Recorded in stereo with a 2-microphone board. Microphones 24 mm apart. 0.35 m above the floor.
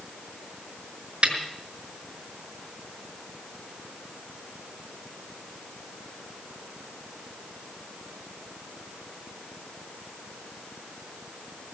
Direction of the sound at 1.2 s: 45° right (ahead or behind).